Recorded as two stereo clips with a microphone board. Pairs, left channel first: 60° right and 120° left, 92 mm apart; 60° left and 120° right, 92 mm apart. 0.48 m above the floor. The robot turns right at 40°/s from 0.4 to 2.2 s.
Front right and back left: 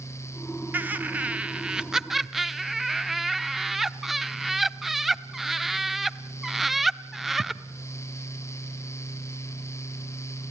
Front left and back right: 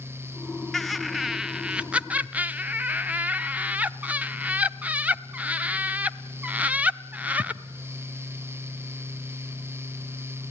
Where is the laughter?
145° left, 0.8 m; by 7.6 s 155° right, 0.8 m.